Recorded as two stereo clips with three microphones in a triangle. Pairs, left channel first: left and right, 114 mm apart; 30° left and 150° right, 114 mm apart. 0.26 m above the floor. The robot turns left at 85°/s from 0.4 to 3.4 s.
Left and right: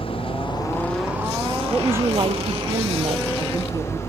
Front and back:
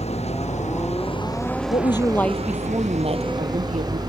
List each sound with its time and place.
0.0 s an engine running: 50° left; by 4.1 s 155° left
1.7 s a woman speaking: straight ahead; by 4.0 s 145° right